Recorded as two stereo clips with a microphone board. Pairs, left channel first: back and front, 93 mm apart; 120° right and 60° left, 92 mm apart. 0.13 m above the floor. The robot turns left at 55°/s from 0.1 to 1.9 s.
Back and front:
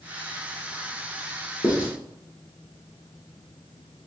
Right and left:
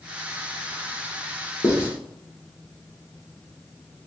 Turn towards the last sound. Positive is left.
turn(degrees=-170)